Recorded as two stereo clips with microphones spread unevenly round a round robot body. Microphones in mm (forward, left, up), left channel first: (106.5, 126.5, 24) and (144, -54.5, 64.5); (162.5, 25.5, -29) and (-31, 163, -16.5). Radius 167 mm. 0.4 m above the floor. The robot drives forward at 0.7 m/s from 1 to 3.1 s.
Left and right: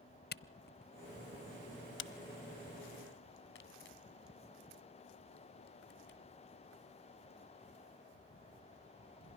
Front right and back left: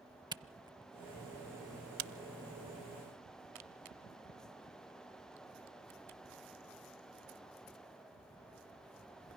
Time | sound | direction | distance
0.3 | a camera shutter | 70° left | 1.0 m